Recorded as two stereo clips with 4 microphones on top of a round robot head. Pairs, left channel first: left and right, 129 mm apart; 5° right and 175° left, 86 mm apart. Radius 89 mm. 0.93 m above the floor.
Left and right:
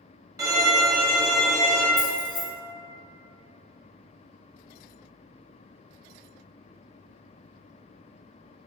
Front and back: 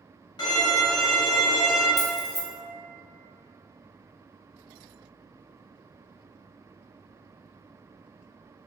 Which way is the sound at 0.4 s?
30° right.